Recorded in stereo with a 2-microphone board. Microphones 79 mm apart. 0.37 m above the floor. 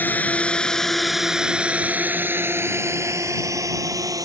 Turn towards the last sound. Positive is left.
turn(degrees=-55)  # may be behind; listen again after turning